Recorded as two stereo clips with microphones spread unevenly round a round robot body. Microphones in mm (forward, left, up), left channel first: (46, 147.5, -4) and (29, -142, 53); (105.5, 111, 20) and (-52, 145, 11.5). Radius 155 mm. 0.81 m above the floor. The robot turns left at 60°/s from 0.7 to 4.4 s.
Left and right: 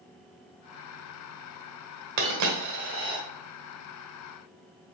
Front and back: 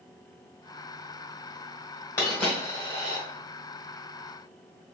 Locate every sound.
2.2 s a dropped coin: 90° right, 1.3 m; by 3.2 s 155° right, 1.3 m